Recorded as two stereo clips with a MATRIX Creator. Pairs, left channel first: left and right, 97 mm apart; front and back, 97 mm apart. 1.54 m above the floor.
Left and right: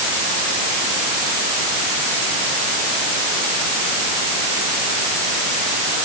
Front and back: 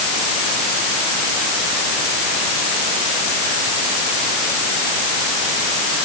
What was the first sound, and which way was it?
Only background noise.